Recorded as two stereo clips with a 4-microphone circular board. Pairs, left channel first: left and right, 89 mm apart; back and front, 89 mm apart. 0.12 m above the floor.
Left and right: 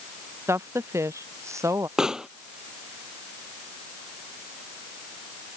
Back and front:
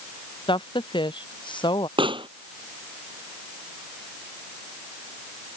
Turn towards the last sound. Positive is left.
turn(degrees=-10)